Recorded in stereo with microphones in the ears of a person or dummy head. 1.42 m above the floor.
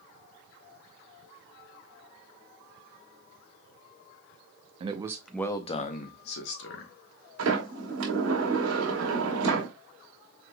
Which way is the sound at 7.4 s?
70° right (ahead or behind).